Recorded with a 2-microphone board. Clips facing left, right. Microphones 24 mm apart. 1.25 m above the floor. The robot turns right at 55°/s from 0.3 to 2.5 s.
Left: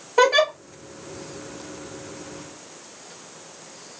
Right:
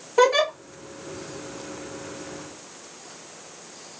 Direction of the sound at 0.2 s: 20° left (ahead or behind).